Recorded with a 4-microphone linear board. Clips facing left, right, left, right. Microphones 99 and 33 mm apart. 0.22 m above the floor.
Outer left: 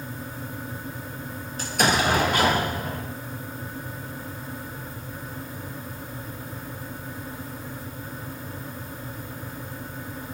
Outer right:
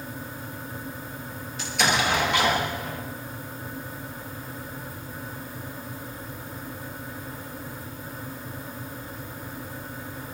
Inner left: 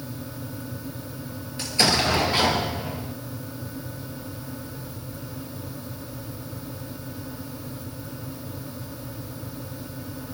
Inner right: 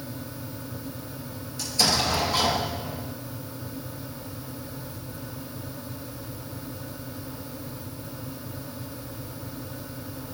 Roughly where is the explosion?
Left.